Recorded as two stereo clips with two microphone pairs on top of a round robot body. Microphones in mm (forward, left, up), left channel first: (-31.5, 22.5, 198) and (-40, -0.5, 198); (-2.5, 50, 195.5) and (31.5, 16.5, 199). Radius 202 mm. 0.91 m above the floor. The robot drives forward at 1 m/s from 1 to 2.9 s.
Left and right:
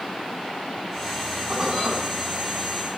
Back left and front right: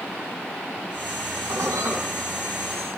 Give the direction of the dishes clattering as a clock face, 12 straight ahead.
1 o'clock.